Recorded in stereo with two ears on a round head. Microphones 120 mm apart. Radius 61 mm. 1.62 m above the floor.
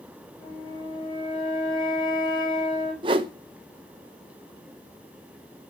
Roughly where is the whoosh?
Right.